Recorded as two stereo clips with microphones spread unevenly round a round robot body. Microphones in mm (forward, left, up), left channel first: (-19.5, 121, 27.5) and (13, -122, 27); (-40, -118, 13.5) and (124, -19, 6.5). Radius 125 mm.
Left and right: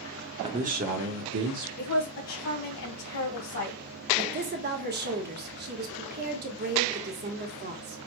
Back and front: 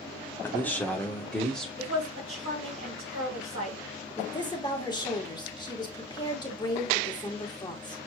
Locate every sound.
0.4 s a man speaking: 90° right, 0.8 m; by 1.7 s 60° right, 1.5 m
1.8 s a woman speaking: 80° left, 3 m
4.2 s a woman speaking: 90° right, 1.5 m